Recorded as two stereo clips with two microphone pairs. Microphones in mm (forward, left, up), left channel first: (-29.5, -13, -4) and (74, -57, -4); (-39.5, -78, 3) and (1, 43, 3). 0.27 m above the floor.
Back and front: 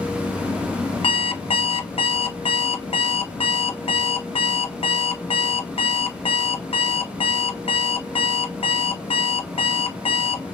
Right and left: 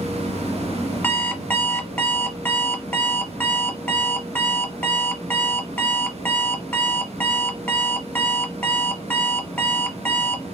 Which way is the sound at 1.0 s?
Straight behind.